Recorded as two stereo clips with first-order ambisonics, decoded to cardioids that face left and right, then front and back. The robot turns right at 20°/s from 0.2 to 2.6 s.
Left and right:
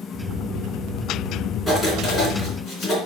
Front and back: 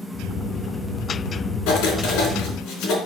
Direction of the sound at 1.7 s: 5° left.